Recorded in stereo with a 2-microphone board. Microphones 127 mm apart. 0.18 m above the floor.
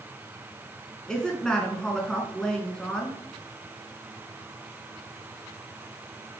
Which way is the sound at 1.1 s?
5° left (ahead or behind).